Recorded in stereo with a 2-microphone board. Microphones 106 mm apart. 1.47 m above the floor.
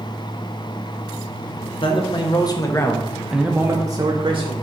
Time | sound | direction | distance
1.8 | a man speaking | 55° left (ahead or behind) | 0.9 m